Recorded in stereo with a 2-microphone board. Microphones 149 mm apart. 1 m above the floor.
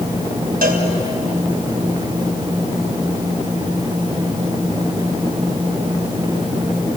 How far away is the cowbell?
About 4 m.